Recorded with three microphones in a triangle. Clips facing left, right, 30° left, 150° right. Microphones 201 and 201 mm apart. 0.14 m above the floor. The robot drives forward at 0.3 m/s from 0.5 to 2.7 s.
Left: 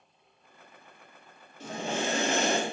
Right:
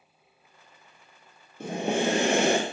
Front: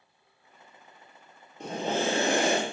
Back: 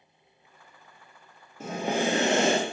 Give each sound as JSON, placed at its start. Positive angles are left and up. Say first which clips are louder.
{"t": 1.6, "sound": "breathing", "louder": "right 6 dB, back 1 dB", "azimuth_deg": -65, "distance_m": 0.8}